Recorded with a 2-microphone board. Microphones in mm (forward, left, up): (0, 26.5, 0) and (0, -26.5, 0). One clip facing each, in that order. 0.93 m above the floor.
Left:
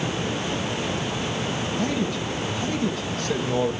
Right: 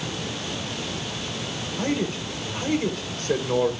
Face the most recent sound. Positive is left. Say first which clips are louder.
# right 2 dB
turn(degrees=-40)  # may be behind; listen again after turning